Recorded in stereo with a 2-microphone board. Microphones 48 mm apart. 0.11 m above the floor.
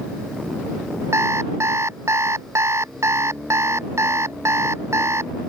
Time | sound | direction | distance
1.1 | an alarm clock | 75° right (ahead or behind) | ?